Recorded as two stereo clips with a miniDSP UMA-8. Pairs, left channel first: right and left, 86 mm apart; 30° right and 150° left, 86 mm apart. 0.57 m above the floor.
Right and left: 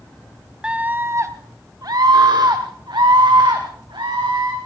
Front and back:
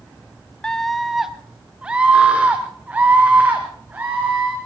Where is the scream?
35° left, 0.6 m; by 4.5 s 85° left, 2.5 m.